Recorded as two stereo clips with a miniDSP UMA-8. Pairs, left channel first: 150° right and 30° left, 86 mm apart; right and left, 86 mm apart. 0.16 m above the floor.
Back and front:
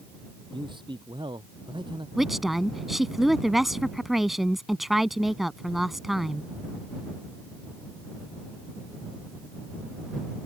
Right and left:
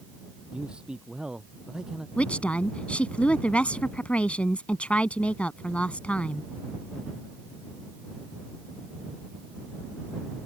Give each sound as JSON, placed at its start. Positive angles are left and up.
{"t": 0.5, "sound": "a man speaking", "azimuth_deg": 10}
{"t": 2.2, "sound": "a woman speaking", "azimuth_deg": -55}